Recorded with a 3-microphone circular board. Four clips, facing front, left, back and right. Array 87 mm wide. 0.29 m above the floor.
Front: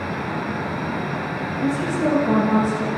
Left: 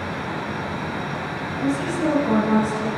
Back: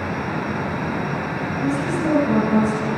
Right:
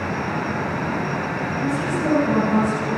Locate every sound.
1.6 s a woman speaking: 15° left, 9 m